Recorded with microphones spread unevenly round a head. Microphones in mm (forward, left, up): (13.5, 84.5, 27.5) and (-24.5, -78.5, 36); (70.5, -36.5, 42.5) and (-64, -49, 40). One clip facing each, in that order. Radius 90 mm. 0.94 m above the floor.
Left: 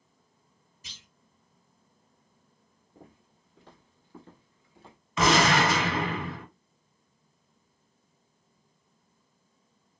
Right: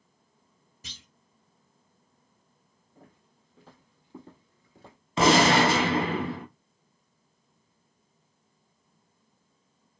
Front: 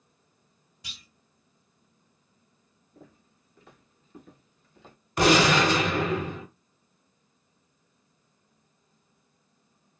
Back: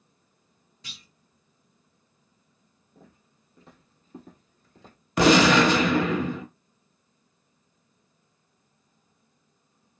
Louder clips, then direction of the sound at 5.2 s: Right 3 dB, back 3 dB; 165° right.